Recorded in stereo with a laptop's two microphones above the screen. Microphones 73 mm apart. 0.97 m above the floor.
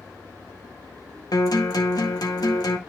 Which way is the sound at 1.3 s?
60° left (ahead or behind).